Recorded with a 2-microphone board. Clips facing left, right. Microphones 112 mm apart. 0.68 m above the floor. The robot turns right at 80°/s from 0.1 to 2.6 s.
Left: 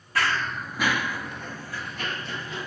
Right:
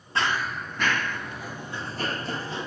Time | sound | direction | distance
0.1 | running footsteps | 25° right (ahead or behind) | 0.8 m